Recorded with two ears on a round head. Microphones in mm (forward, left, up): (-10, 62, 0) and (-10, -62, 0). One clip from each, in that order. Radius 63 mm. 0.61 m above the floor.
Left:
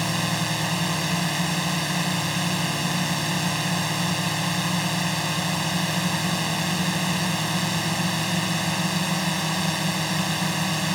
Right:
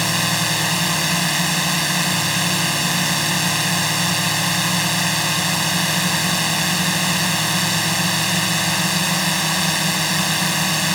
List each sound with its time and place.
0.0 s a drone: 30° right (ahead or behind)